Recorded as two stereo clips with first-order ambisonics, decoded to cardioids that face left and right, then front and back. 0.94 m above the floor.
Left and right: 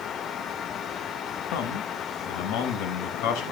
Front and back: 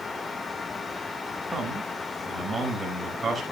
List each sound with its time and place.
1.5 s a man speaking: 95° left, 3.5 m